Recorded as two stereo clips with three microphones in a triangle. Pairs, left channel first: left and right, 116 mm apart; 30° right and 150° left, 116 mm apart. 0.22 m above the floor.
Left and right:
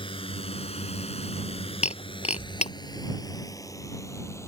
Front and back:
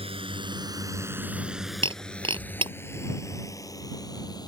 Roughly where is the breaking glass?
Left.